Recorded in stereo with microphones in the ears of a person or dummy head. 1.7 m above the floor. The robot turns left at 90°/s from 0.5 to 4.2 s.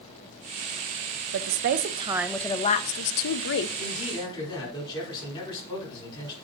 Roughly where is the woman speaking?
Right.